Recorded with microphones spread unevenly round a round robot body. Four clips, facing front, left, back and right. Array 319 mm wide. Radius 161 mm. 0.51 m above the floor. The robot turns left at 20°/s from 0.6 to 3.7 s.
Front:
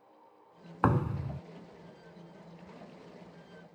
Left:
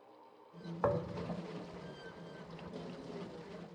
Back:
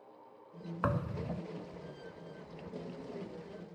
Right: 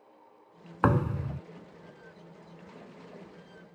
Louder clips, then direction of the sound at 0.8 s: Right 7 dB, front 6 dB; 50° right.